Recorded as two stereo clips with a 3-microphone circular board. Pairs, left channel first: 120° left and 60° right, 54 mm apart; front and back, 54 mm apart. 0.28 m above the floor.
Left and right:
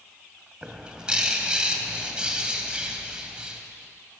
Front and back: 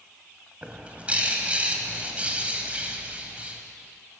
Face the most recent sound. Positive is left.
turn(degrees=-125)